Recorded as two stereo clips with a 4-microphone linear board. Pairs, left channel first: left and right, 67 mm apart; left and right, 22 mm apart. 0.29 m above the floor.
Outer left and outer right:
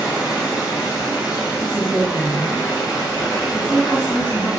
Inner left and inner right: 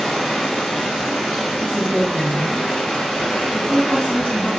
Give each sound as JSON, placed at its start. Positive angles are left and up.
{"t": 0.0, "sound": "running water", "side_deg": 80, "distance_m": 2.5}
{"t": 1.6, "sound": "a woman speaking", "side_deg": 65, "distance_m": 2.0}